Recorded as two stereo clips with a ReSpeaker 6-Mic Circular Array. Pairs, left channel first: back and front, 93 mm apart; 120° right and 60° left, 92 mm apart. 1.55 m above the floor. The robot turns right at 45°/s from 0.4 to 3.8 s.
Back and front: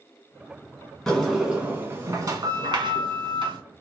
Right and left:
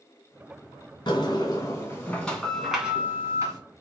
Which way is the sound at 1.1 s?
95° right.